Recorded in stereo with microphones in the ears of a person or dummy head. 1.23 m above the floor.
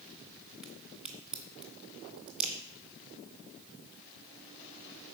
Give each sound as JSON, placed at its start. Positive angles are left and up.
{"t": 0.6, "sound": "a crack", "side_deg": 0, "distance_m": 2.0}